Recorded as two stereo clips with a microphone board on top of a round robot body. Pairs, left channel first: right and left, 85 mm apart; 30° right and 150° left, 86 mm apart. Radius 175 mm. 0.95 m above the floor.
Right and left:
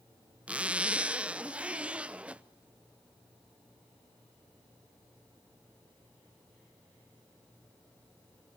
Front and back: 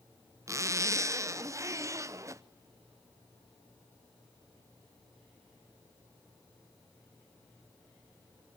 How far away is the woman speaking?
No woman speaking in this recording.